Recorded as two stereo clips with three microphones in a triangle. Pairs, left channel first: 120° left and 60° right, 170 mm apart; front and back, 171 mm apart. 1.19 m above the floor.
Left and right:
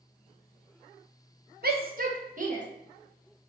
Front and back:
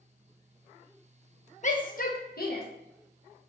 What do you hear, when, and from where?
1.6 s a shout: 40° right, 0.8 m; by 2.6 s 20° right, 1.3 m